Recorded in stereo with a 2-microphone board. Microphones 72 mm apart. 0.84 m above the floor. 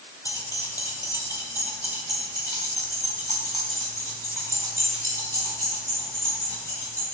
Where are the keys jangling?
65° left (ahead or behind), 2 m; by 7.0 s 40° left (ahead or behind), 6.5 m.